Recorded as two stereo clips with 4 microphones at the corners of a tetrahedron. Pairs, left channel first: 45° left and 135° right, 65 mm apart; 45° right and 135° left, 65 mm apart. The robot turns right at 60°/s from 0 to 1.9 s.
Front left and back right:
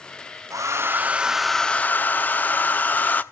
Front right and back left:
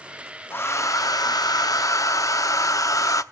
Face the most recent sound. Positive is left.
turn(degrees=-15)